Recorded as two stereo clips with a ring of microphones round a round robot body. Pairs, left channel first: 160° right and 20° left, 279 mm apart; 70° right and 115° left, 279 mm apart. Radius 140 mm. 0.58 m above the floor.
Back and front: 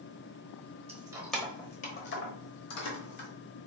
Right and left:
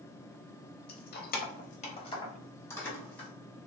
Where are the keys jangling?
35° right, 0.8 m; by 3.3 s 155° right, 1.3 m.